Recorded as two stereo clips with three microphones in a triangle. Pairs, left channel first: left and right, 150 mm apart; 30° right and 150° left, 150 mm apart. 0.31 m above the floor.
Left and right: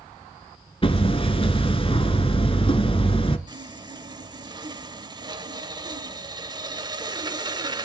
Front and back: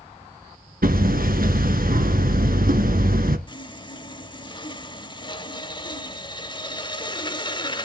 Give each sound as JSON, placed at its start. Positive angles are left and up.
{"t": 0.8, "sound": "hammering", "azimuth_deg": 140, "distance_m": 1.1}
{"t": 3.5, "sound": "sawing", "azimuth_deg": -55, "distance_m": 0.8}